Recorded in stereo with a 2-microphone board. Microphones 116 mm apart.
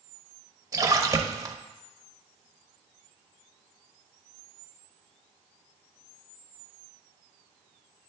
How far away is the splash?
About 0.7 m.